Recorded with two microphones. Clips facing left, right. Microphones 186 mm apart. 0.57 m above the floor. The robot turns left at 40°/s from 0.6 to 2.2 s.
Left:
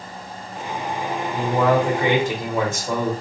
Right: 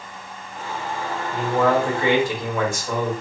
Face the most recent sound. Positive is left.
turn(degrees=20)  # may be behind; listen again after turning